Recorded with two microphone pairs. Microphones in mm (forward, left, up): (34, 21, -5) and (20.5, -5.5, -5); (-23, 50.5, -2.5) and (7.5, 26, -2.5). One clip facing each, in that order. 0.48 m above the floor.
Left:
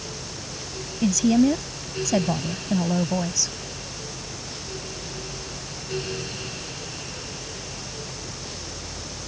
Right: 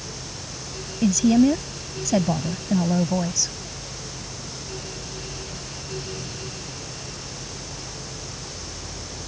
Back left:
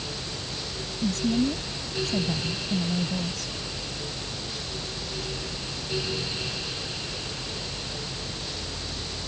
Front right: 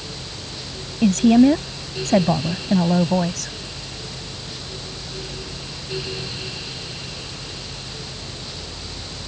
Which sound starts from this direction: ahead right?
A woman speaking, at 1.0 s.